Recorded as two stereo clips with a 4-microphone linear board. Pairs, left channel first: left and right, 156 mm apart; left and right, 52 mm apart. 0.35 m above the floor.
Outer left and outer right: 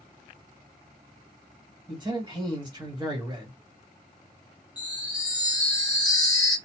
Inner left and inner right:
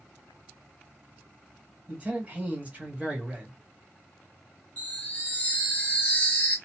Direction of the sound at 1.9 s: 30° right (ahead or behind).